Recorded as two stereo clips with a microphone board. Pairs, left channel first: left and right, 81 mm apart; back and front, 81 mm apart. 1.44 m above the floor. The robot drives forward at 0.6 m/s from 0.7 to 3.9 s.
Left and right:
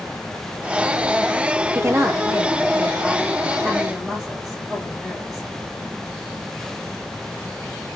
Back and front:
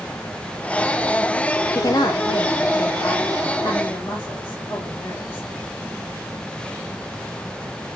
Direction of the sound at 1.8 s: 140° right.